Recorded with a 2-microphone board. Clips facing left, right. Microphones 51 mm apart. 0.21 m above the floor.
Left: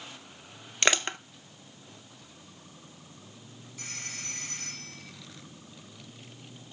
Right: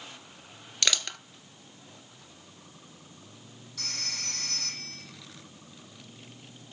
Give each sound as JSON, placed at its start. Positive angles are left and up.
{"t": 0.8, "sound": "crushing", "side_deg": 35, "distance_m": 0.5}
{"t": 3.8, "sound": "a phone ringing", "side_deg": -75, "distance_m": 6.0}